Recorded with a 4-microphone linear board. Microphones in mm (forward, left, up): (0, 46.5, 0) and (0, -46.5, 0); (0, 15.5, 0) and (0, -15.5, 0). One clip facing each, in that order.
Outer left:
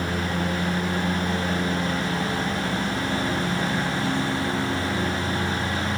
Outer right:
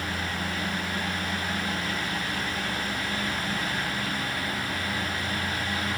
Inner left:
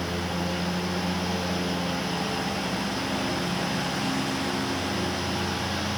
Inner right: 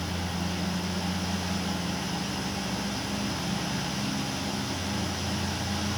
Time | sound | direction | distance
0.0 | a lawn mower | 75° left (ahead or behind) | ?